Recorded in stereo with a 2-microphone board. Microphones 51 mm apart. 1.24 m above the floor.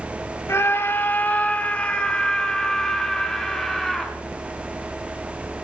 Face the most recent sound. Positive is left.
turn(degrees=5)  # may be behind; listen again after turning